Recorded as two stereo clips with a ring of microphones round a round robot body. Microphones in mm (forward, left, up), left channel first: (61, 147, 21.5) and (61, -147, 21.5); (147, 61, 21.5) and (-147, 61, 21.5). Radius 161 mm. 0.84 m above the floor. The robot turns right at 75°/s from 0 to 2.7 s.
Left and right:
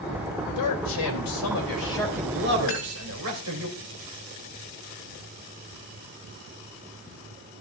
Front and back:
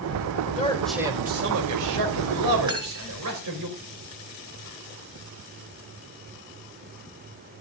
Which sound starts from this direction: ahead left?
A man speaking, at 0.6 s.